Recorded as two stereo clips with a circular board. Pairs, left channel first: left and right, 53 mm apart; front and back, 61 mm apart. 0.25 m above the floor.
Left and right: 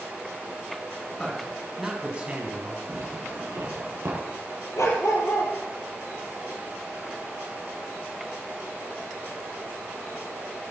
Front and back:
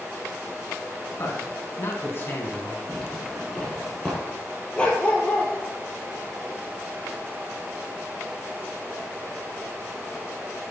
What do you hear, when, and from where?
1.2 s a man speaking: 10° left, 2.5 m; by 2.8 s 60° right, 2.5 m
2.9 s a zipper: 80° right, 6 m
4.8 s a dog barking: 70° left, 2 m